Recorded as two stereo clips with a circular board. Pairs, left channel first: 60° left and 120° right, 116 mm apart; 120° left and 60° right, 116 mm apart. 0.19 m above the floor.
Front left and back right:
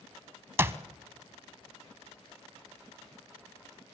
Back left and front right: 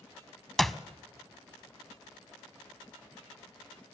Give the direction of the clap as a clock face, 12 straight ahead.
5 o'clock.